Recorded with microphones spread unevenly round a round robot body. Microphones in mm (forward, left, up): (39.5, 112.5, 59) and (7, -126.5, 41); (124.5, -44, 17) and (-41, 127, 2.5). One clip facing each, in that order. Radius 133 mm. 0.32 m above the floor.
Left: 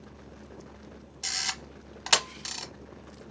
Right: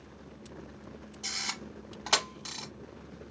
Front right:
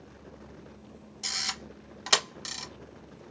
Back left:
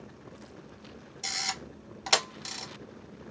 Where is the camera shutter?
30° left, 1.1 m.